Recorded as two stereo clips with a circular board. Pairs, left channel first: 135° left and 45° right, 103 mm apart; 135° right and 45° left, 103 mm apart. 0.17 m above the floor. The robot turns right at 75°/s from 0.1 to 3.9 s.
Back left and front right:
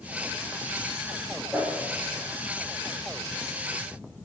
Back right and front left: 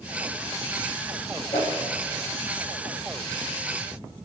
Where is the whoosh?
125° right, 4.5 m; by 1.8 s 105° right, 4.5 m.